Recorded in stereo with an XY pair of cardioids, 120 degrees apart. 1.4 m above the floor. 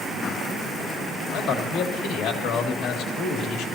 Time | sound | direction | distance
1.3 | a man speaking | 65° left | 2.5 m